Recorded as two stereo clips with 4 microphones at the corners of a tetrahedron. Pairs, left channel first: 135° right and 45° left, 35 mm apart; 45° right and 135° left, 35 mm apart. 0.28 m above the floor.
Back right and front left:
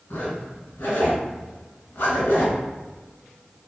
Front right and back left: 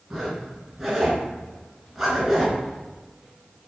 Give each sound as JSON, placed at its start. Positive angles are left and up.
{"t": 0.1, "sound": "a zipper", "azimuth_deg": -150, "distance_m": 0.9}